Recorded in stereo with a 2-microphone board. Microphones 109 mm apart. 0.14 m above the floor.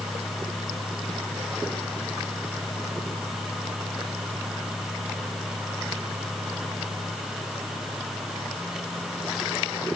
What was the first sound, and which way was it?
Only background noise.